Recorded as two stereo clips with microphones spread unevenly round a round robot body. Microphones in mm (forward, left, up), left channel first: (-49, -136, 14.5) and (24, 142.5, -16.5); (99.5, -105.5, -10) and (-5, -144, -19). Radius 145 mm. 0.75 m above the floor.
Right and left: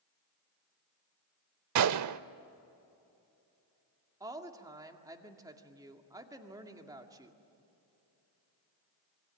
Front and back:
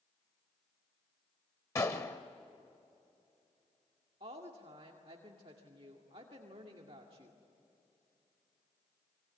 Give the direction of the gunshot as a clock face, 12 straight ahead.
10 o'clock.